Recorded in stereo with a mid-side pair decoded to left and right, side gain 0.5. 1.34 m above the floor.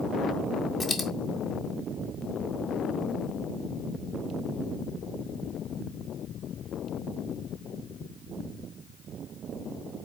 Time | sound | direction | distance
0.8 | a dropped coin | 25° left | 1.9 m